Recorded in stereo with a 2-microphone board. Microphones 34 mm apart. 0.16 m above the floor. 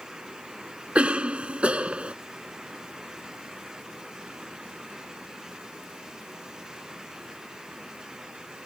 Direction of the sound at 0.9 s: 35° right (ahead or behind).